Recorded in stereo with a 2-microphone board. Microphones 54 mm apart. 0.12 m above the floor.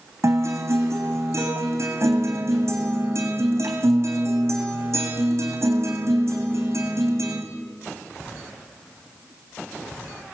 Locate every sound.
0.2 s a guitar: 55° right (ahead or behind), 3.5 m